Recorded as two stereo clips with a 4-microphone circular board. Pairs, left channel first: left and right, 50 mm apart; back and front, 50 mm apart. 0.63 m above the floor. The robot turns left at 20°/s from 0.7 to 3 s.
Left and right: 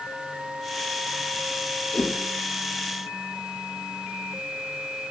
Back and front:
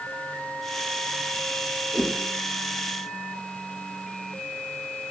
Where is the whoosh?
45° left, 2.5 m; by 2.1 s 40° left, 2.5 m.